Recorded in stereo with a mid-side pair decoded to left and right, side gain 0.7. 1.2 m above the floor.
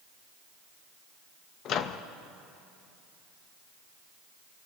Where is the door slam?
I don't hear a door slam.